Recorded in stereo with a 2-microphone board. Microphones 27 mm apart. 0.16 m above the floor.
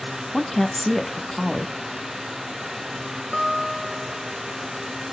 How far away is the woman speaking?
About 1.1 m.